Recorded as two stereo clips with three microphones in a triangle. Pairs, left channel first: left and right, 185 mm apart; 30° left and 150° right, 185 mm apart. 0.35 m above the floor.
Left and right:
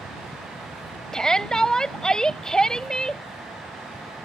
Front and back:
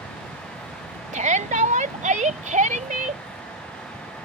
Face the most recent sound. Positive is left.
turn(degrees=175)